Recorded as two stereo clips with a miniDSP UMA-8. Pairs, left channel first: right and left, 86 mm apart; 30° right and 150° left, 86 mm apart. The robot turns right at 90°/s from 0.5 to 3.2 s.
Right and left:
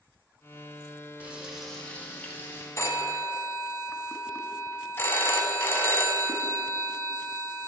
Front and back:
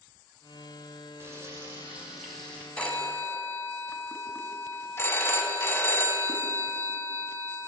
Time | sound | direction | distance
1.2 | frying | 140° left | 1.5 m
2.8 | a phone ringing | 95° right | 0.7 m